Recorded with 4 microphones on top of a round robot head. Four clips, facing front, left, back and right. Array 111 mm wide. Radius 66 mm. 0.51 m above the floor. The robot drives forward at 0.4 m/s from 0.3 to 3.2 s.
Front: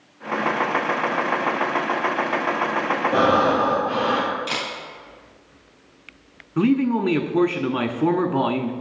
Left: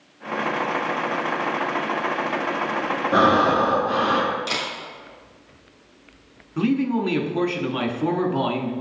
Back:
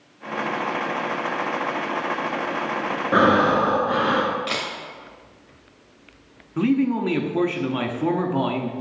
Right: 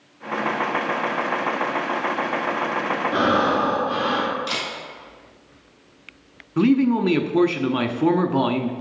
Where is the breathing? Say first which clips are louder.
Left 3 dB, back 2 dB; 160° left, 1.9 m.